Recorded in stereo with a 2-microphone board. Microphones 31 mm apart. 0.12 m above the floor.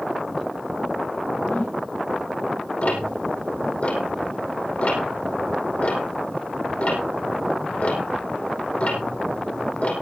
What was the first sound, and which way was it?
A whoosh, 80° left.